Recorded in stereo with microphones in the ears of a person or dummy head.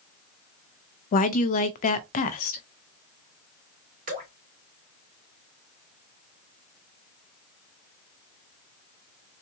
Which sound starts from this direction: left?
A woman speaking, at 1.1 s.